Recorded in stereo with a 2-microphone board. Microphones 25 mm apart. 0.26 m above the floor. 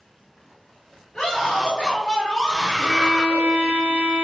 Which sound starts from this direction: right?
A violin, at 2.8 s.